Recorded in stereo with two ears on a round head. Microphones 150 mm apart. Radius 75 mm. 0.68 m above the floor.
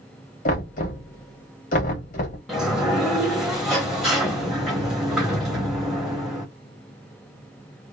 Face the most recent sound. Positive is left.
turn(degrees=0)  # may be behind; listen again after turning